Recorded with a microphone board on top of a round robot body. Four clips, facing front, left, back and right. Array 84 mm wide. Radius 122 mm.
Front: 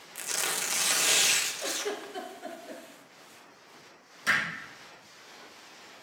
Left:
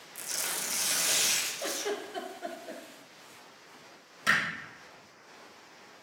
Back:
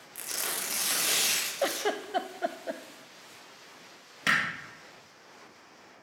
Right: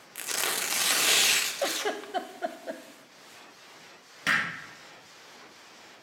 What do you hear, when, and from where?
0.1 s tearing paper: 75° right, 1.1 m
1.6 s a giggle: 145° right, 0.6 m
4.3 s hammering: 150° right, 4 m